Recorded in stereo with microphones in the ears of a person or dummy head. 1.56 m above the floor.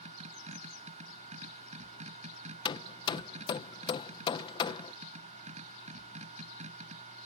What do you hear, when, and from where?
0.0 s a machine running: 40° right (ahead or behind)
2.6 s hammering: 30° left (ahead or behind)